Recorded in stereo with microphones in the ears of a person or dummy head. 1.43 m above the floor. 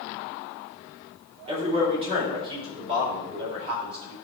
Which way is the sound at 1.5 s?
30° right (ahead or behind).